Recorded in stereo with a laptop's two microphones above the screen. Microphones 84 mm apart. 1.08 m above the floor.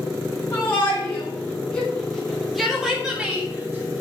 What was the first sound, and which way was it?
A shout, 25° left (ahead or behind).